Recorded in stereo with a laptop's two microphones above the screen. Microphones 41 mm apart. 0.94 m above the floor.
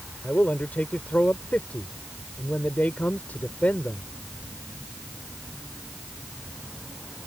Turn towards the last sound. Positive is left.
turn(degrees=40)  # may be behind; listen again after turning